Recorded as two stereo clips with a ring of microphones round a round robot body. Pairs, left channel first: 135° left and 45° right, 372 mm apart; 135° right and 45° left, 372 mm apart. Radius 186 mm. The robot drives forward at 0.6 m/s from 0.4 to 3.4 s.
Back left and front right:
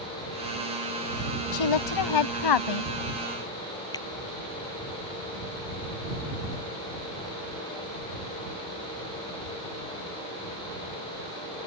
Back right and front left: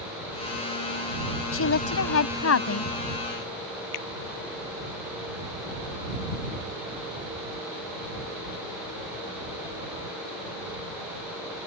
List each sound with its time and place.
1.5 s a woman speaking: 170° left
3.9 s a finger snap: 145° right